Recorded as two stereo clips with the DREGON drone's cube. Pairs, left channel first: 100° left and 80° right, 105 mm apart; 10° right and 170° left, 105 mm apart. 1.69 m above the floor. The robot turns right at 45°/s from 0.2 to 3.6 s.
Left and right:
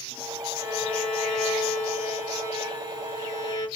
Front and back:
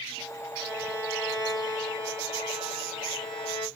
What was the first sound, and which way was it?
A violin, 145° left.